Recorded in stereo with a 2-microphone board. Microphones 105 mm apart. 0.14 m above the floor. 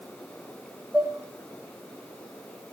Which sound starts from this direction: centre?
Dishes clattering, at 0.9 s.